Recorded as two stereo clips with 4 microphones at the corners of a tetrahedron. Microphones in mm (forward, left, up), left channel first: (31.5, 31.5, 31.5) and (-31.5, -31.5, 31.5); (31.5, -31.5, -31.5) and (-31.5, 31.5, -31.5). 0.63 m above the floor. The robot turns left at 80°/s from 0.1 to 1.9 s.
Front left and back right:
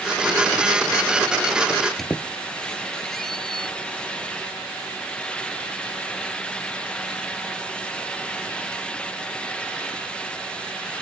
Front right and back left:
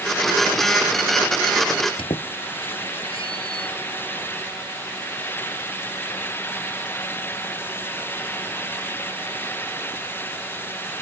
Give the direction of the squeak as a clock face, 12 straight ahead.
1 o'clock.